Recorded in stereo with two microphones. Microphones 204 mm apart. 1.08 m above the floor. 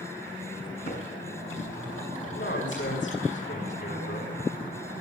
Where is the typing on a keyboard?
85° left, 10 m.